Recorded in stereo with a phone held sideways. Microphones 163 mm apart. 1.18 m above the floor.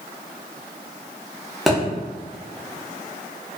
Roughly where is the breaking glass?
I don't hear breaking glass.